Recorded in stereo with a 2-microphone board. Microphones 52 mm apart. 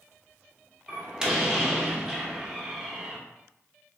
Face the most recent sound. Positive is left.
turn(degrees=-15)  # may be behind; listen again after turning